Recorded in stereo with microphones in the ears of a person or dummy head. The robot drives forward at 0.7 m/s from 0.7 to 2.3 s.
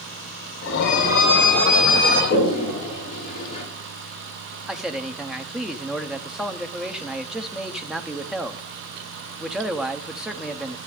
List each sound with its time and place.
0.8 s a violin: 65° left (ahead or behind), 5 m; by 2.2 s 55° left (ahead or behind), 5.5 m
2.3 s a toilet flushing: 30° left (ahead or behind), 6.5 m
4.7 s a man speaking: 5° right (ahead or behind), 0.6 m